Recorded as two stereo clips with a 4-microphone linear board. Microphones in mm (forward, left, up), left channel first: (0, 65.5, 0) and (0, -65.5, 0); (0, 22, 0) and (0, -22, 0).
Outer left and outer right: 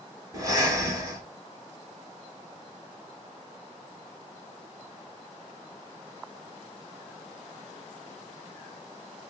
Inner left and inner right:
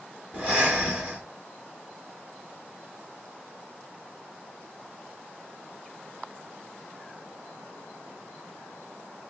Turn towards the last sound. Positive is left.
turn(degrees=-25)  # may be behind; listen again after turning